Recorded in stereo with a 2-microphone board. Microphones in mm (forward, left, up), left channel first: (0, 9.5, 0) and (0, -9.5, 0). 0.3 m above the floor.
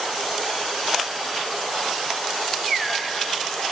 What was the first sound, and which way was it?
Only background noise.